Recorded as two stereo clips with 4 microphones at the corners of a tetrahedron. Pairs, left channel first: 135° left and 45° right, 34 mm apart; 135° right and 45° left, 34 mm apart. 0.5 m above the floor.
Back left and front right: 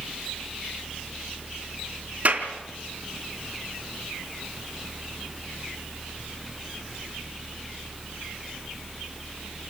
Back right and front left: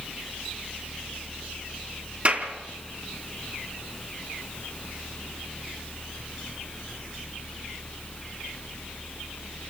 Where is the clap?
5° right, 4 m.